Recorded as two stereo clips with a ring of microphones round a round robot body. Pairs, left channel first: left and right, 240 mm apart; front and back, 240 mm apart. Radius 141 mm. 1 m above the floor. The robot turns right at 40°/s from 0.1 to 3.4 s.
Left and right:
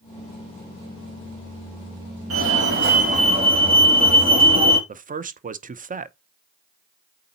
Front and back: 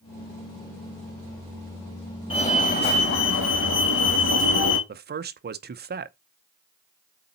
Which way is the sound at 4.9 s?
140° right.